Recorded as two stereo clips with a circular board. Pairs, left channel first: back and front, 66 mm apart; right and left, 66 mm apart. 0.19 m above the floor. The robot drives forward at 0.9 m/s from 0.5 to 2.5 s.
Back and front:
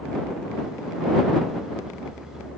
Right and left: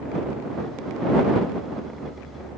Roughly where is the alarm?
I don't hear an alarm.